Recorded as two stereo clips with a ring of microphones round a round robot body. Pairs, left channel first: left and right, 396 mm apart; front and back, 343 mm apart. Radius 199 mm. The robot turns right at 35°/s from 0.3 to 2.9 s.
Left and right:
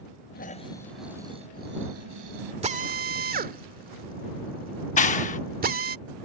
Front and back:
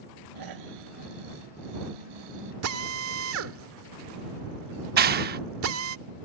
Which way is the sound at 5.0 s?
145° left.